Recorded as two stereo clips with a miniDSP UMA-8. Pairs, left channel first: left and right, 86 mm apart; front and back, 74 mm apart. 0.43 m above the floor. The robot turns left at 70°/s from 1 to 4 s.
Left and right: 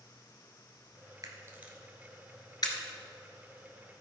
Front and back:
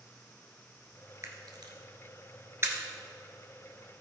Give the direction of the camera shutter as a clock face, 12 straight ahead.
4 o'clock.